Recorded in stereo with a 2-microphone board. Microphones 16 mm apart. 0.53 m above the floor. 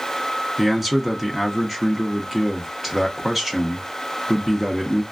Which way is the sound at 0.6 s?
20° right (ahead or behind).